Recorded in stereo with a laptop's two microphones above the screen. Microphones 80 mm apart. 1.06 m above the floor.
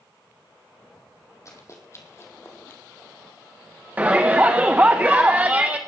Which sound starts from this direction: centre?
A shout, at 4.0 s.